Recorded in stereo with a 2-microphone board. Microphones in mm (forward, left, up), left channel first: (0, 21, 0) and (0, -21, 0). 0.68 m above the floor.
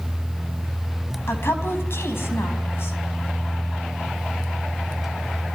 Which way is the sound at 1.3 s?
75° left (ahead or behind).